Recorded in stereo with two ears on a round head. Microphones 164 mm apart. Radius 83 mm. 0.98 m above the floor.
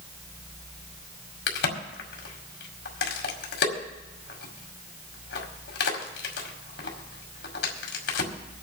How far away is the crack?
About 2.0 m.